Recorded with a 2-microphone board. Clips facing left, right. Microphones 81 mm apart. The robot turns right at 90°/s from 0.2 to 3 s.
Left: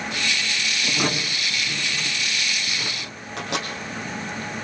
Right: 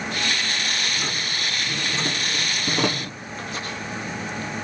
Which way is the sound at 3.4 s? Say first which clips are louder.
Left 4 dB; 70° left (ahead or behind).